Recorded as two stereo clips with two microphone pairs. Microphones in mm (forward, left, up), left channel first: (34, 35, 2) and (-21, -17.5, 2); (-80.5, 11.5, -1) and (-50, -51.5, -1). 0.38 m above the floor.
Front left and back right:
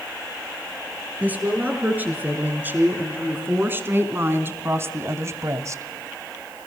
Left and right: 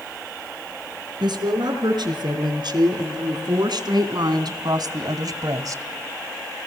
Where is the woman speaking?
65° right, 6 m; by 5.8 s 95° right, 1.8 m.